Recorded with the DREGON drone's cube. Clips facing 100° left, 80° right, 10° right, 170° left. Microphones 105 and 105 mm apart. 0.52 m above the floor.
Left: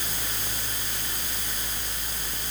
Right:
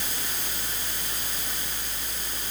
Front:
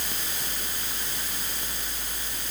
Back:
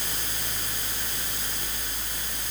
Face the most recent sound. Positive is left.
No sound to turn to.